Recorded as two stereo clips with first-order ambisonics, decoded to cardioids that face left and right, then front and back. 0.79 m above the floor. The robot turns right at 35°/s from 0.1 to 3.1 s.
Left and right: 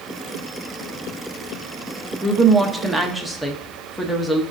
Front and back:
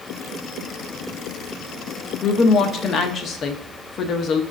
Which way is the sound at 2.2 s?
30° right.